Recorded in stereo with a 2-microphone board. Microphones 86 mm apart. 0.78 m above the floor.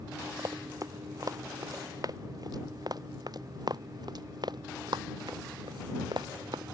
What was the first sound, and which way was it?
Running footsteps, 45° right (ahead or behind).